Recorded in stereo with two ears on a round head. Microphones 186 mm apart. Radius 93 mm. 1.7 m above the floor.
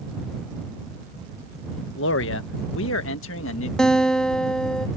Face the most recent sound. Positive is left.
turn(degrees=5)  # may be behind; listen again after turning